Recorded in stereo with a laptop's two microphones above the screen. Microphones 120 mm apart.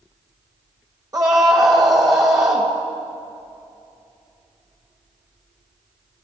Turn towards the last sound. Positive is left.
turn(degrees=-30)  # may be behind; listen again after turning